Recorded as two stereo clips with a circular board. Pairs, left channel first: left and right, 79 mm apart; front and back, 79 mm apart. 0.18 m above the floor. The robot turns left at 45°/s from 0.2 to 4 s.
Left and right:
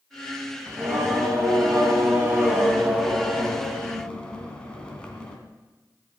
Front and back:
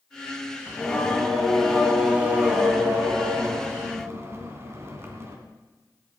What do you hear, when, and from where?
0.7 s singing: 50° right, 2.0 m; by 5.4 s 160° left, 2.0 m